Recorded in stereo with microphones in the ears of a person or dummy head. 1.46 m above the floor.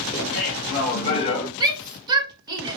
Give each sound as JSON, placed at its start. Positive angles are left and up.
{"t": 0.1, "sound": "laughter", "side_deg": 45, "distance_m": 1.5}
{"t": 1.6, "sound": "a shout", "side_deg": -20, "distance_m": 1.0}